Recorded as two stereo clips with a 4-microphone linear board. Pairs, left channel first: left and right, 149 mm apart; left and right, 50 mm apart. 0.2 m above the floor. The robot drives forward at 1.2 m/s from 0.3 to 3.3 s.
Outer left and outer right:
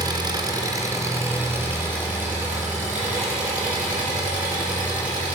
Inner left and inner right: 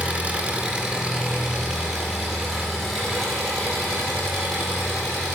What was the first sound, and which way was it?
An engine running, 30° right (ahead or behind).